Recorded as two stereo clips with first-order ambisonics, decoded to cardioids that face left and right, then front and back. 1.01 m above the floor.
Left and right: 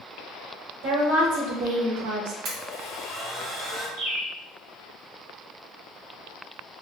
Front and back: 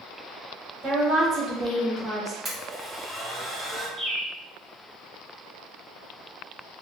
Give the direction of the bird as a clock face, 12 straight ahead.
4 o'clock.